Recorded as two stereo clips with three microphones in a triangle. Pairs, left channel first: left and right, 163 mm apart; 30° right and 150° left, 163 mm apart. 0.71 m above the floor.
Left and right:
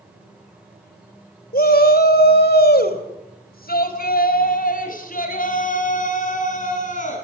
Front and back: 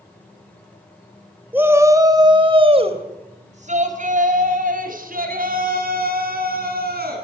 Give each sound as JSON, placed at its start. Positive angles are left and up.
{"t": 1.5, "sound": "a shout", "azimuth_deg": 70, "distance_m": 3.0}